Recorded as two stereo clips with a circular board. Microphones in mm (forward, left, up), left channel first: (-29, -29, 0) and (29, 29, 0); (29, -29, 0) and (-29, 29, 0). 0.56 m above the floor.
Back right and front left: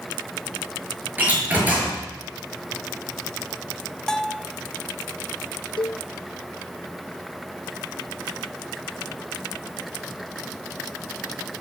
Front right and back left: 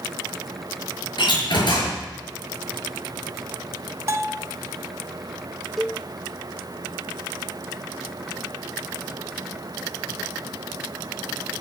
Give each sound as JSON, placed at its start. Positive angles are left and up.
{"t": 1.2, "sound": "a door slam", "azimuth_deg": -25, "distance_m": 6.0}
{"t": 4.1, "sound": "a bell", "azimuth_deg": 145, "distance_m": 0.7}
{"t": 5.8, "sound": "a cowbell", "azimuth_deg": -135, "distance_m": 0.5}